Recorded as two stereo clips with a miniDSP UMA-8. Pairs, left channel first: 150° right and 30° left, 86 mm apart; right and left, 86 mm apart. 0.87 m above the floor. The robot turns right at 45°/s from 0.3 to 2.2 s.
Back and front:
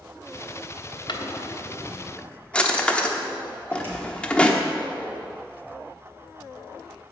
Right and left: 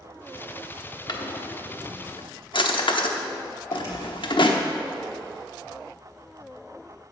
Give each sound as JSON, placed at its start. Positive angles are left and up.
{"t": 1.1, "sound": "a drawer", "azimuth_deg": -125, "distance_m": 0.9}
{"t": 3.7, "sound": "a door slam", "azimuth_deg": -35, "distance_m": 3.5}